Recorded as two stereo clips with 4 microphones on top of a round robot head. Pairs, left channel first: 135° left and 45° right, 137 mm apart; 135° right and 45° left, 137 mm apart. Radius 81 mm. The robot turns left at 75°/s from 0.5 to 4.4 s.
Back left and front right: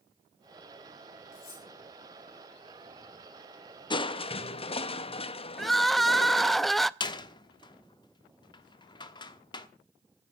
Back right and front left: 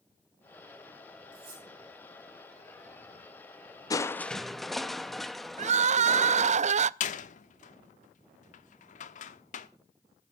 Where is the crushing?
175° left, 1.0 m; by 6.6 s 135° left, 1.0 m.